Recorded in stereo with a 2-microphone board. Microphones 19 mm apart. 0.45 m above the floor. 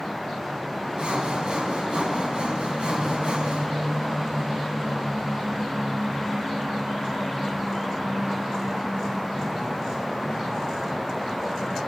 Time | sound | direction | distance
1.0 | sawing | 60° right (ahead or behind) | 1.9 m